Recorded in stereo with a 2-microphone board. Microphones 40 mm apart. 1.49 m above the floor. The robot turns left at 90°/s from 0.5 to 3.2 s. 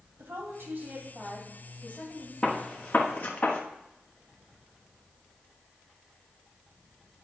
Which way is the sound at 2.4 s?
20° left (ahead or behind).